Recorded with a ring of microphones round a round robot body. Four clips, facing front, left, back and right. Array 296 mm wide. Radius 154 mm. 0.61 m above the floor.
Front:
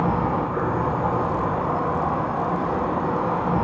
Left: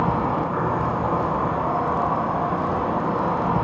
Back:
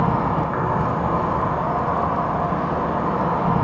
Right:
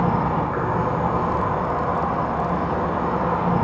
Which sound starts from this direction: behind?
An insect, at 0.0 s.